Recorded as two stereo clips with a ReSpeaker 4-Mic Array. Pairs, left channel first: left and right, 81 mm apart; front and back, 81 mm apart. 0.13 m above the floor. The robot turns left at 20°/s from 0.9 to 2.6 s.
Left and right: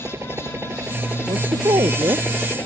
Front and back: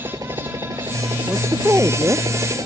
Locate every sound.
0.0 s a helicopter: 140° right; by 2.7 s 155° left
1.3 s a woman speaking: 110° right; by 2.2 s 130° right